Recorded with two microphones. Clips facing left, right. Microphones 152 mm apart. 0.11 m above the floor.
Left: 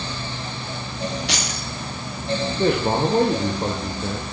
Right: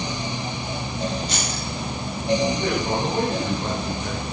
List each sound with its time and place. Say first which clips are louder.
1.3 s keys jangling: even; 80° left, 10 m
2.6 s a man speaking: left 4 dB; 45° left (ahead or behind), 7.5 m